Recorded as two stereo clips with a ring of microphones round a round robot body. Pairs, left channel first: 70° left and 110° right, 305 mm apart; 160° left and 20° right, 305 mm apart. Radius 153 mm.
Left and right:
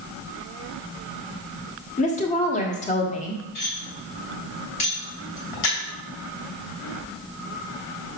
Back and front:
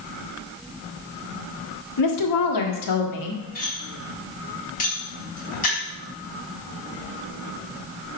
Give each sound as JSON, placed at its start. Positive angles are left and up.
{"t": 2.0, "sound": "a woman speaking", "azimuth_deg": 135, "distance_m": 1.5}
{"t": 3.5, "sound": "cutlery clinking", "azimuth_deg": 90, "distance_m": 3.0}